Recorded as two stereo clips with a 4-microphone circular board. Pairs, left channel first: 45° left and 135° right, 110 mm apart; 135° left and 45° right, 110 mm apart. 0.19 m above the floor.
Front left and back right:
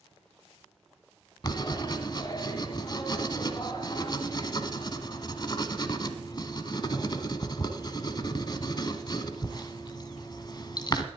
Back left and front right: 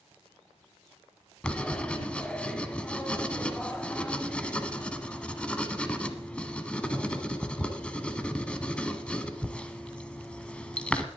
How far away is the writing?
About 1.0 m.